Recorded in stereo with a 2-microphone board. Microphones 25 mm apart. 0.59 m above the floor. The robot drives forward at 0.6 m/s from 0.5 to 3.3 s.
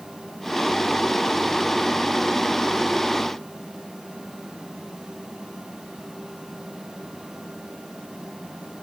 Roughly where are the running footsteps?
No running footsteps in this recording.